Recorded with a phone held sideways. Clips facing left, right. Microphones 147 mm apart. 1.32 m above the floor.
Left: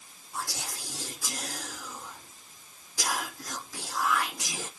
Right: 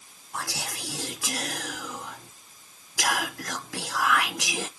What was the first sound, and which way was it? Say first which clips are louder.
Whispering: right 3 dB; 85° right.